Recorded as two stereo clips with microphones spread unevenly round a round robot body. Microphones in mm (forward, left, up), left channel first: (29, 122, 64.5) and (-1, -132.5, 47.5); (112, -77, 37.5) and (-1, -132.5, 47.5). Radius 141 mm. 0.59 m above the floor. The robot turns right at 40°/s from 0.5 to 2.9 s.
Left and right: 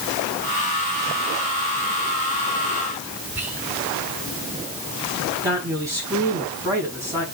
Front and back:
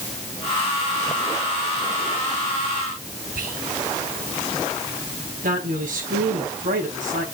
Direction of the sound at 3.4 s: Straight behind.